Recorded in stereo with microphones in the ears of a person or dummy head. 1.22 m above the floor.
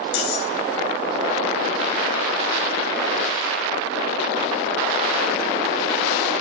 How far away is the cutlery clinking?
About 1.9 m.